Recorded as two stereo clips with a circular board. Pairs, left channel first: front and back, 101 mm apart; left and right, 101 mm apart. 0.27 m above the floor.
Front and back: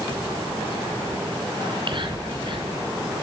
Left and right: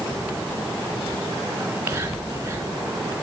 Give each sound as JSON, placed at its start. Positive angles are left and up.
{"t": 1.6, "sound": "whispering", "azimuth_deg": -165, "distance_m": 2.0}